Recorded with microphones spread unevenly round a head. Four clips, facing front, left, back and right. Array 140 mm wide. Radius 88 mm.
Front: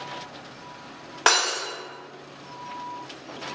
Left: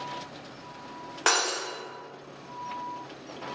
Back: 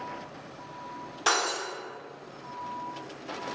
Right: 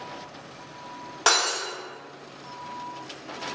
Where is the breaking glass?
Straight ahead, 1.3 m.